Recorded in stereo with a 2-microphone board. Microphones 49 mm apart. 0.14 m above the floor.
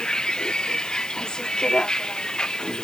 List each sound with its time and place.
0.0 s a vehicle: 15° left (ahead or behind)